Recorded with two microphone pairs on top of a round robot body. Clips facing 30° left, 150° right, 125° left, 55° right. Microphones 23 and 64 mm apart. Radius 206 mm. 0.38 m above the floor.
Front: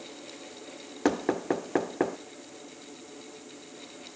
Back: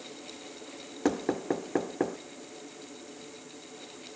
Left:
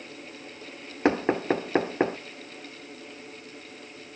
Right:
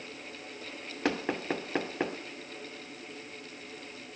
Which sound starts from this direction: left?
Knocking, at 1.1 s.